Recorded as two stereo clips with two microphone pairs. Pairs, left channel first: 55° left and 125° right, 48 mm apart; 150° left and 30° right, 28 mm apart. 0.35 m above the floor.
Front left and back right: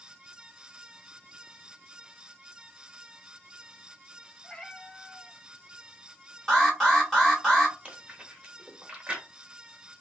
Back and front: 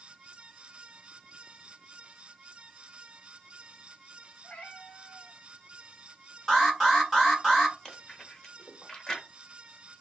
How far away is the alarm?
About 1.5 m.